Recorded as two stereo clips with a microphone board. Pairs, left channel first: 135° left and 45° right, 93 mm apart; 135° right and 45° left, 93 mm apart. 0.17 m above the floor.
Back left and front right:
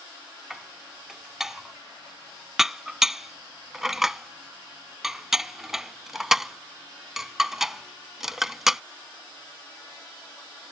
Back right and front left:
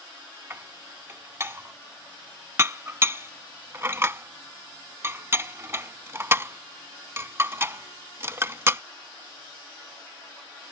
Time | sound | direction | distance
0.5 | dishes clattering | 35° left | ?